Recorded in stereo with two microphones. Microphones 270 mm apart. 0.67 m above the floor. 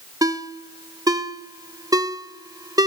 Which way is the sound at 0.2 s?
15° right (ahead or behind).